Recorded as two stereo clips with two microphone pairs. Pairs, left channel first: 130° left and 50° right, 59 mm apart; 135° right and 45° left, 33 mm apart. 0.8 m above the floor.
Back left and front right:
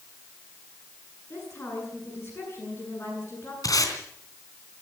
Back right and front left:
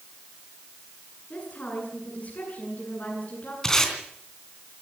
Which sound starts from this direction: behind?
A woman speaking, at 1.3 s.